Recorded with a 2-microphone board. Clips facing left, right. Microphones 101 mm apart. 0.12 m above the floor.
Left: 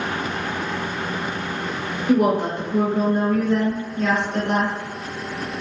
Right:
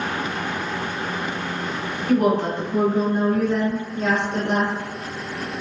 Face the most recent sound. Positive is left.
turn(degrees=-45)  # may be behind; listen again after turning